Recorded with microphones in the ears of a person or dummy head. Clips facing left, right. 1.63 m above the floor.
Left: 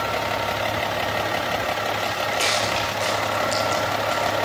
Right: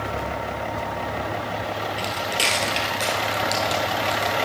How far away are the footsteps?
About 1.9 m.